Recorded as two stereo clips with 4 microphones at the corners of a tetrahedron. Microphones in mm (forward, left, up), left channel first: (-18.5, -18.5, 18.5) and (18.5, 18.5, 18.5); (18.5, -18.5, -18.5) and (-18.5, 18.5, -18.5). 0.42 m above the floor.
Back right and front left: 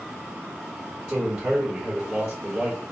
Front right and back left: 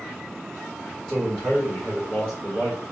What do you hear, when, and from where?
1.1 s a man speaking: 25° left, 1.4 m